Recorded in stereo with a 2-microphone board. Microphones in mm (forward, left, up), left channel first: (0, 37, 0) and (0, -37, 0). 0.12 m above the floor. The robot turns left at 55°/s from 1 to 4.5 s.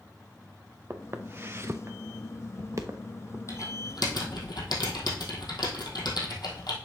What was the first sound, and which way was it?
Footsteps, 35° right (ahead or behind).